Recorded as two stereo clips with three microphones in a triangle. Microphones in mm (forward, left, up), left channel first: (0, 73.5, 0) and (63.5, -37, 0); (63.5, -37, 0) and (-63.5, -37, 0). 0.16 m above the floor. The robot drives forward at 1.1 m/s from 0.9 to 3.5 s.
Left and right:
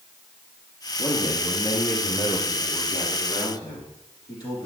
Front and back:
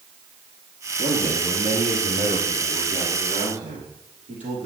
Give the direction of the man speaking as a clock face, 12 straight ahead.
6 o'clock.